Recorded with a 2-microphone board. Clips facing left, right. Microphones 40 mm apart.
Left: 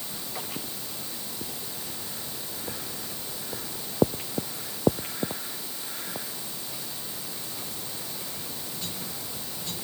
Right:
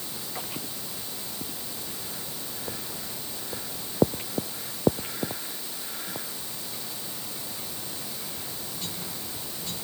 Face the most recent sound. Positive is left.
No sound to turn to.